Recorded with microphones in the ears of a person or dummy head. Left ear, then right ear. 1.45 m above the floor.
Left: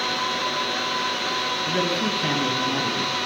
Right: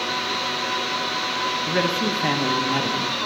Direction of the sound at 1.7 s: 25° right (ahead or behind).